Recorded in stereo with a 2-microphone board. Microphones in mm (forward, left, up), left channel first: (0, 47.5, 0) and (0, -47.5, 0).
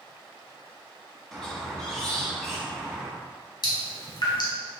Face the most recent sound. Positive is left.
turn(degrees=55)  # may be behind; listen again after turning